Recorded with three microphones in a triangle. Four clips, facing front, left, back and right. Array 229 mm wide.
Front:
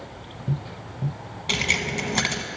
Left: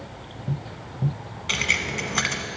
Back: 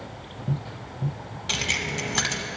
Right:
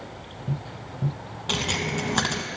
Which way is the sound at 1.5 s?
75° right.